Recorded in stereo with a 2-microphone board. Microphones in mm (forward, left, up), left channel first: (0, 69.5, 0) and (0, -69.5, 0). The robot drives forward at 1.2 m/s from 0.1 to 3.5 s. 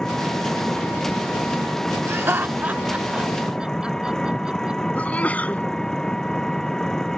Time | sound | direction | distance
0.0 | an engine running | 5° left (ahead or behind) | ?
2.1 | laughter | 15° right (ahead or behind) | ?
5.0 | a sneeze | 10° left (ahead or behind) | ?